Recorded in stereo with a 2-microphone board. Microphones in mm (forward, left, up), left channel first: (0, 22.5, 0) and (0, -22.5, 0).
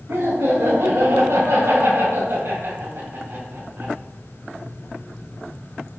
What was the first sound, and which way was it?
Laughter, 70° right (ahead or behind).